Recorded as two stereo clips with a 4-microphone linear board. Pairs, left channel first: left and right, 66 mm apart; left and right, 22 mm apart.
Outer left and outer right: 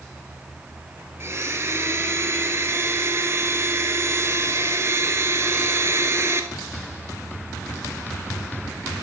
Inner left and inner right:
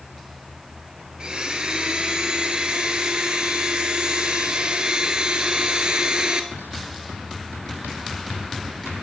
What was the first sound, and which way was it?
A blender, 40° right (ahead or behind).